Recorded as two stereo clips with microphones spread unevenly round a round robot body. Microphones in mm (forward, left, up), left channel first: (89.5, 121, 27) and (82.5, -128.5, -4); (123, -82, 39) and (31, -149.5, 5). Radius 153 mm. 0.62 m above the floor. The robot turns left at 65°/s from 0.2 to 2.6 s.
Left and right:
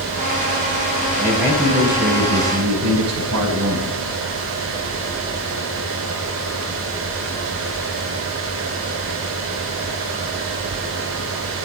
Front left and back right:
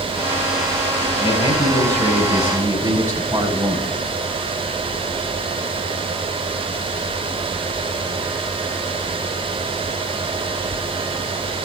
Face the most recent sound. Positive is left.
turn(degrees=-80)